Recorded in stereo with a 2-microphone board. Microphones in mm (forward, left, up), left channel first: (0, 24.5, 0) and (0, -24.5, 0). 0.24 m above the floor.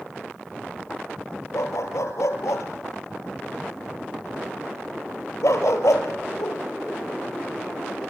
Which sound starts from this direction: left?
A dog barking, at 1.5 s.